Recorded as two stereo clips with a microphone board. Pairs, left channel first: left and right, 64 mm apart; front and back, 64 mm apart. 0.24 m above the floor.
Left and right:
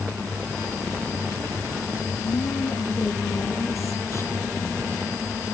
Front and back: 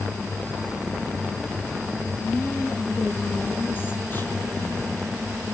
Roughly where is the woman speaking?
Ahead left.